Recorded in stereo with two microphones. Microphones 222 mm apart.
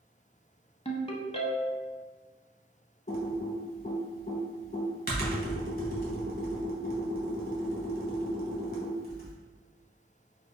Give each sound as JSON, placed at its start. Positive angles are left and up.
{"t": 0.8, "sound": "a ringtone", "side_deg": 25, "distance_m": 0.5}
{"t": 3.1, "sound": "typing on a keyboard", "side_deg": 45, "distance_m": 1.0}